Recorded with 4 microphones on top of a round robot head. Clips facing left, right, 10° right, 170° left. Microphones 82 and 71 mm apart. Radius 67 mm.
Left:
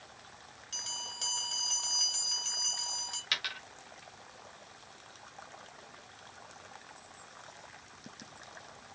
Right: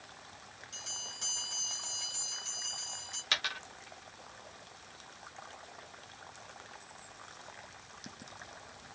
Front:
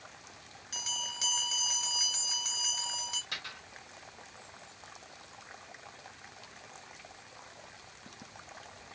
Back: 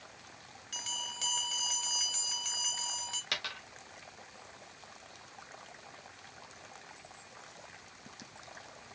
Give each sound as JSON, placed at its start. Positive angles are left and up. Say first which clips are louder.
{"t": 0.7, "sound": "a bell", "louder": "left 6 dB, front 2 dB", "azimuth_deg": 70, "distance_m": 2.5}
{"t": 3.3, "sound": "a dropped coin", "louder": "right 3 dB, back 3 dB", "azimuth_deg": -145, "distance_m": 1.1}